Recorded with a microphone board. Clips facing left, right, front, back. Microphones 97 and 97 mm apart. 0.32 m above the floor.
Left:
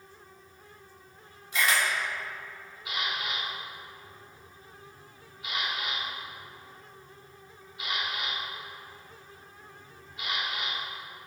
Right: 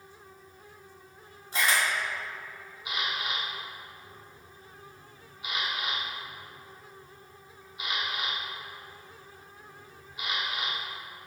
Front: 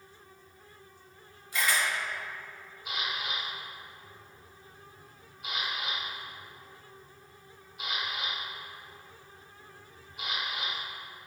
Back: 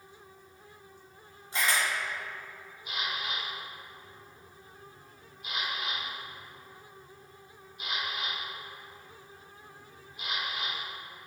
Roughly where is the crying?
No crying in this recording.